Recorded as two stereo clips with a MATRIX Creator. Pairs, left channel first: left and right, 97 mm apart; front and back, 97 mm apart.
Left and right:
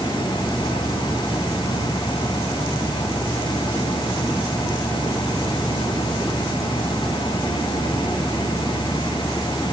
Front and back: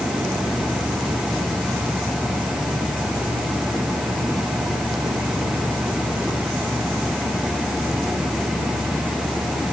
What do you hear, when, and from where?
Only background noise.